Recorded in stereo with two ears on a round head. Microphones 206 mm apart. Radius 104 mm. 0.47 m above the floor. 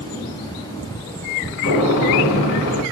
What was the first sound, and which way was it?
A gunshot, 50° left (ahead or behind).